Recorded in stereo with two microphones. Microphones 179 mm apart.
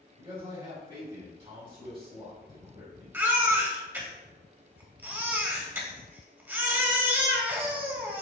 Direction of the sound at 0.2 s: 30° right (ahead or behind).